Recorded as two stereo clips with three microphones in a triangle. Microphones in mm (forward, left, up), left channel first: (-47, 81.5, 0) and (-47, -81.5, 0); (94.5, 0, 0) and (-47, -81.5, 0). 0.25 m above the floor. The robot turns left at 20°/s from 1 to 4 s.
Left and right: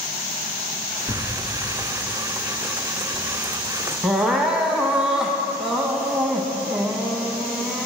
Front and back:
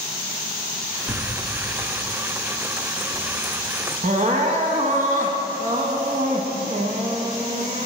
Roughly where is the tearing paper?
Behind left.